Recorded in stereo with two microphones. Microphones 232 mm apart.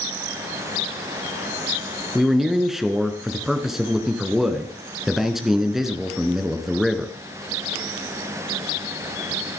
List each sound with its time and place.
2.1 s a man speaking: centre (ahead or behind), 2 m